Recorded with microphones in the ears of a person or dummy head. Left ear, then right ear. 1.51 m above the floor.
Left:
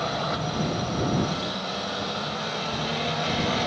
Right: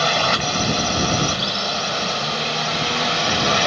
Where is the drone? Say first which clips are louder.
Right 10 dB; 65° right (ahead or behind).